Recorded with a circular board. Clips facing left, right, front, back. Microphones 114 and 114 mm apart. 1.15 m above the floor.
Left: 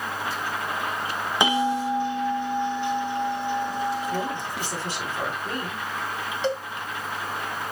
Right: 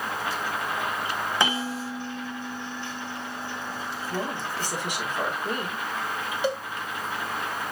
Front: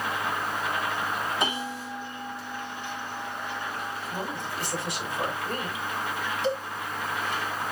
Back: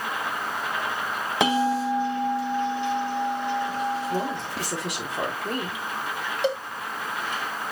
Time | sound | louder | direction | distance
1.4 | a bell | left 9 dB, back 9 dB | 165° left | 2 m
4.1 | a woman speaking | left 2 dB, back 5 dB | 165° right | 3.5 m
6.4 | a cowbell | left 1 dB, back 3 dB | 165° right | 1.9 m